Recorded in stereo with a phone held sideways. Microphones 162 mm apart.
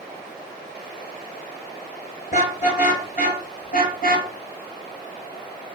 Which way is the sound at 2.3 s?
50° left (ahead or behind).